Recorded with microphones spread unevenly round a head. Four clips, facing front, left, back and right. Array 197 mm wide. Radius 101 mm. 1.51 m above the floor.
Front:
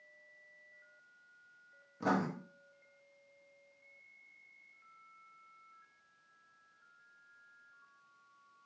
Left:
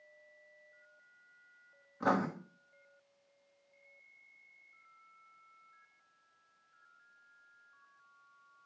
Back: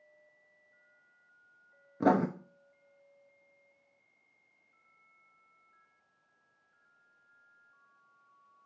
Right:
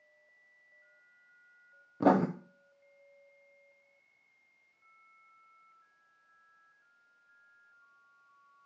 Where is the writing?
125° right, 0.6 m.